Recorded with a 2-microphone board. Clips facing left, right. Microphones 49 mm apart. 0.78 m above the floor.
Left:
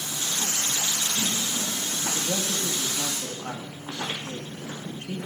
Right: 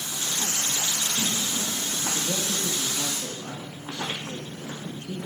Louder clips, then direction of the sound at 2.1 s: Left 1 dB; 55° left (ahead or behind).